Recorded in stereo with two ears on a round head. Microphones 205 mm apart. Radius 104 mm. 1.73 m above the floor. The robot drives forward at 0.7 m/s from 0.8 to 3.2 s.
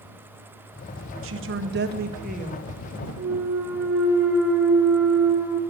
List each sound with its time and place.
1.2 s a woman speaking: 65° right (ahead or behind), 1.1 m; by 2.7 s 35° right (ahead or behind), 1.7 m
3.2 s a clunk: centre (ahead or behind), 3 m